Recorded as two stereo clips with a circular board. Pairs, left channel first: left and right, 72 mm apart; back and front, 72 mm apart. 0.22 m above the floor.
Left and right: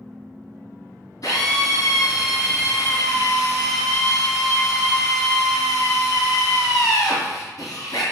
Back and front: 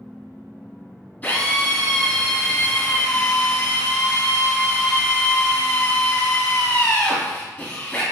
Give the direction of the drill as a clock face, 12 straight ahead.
8 o'clock.